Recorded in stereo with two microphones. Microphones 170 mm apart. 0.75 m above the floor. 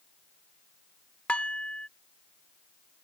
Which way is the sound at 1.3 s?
5° left (ahead or behind).